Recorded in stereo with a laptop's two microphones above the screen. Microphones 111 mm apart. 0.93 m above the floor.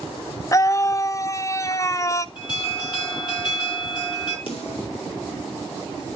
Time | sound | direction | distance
0.5 | a scream | 30° left (ahead or behind) | 0.5 m
2.4 | an alarm | 45° left (ahead or behind) | 5.5 m
4.5 | a snare drum | 50° left (ahead or behind) | 3.5 m